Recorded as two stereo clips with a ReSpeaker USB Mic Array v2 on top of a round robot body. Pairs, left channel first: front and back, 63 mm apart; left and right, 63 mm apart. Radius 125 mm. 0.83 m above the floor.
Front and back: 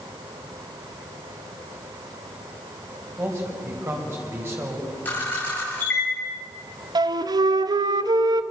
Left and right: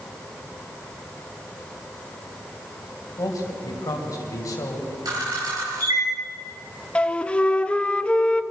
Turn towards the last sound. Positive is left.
turn(degrees=165)